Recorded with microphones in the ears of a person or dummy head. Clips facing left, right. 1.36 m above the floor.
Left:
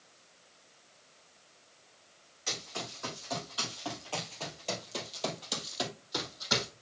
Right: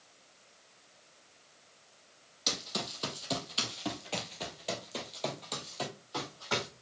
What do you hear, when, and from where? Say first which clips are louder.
2.5 s running footsteps: right 3 dB; 60° right (ahead or behind), 3 m; by 6.7 s 30° left (ahead or behind), 3 m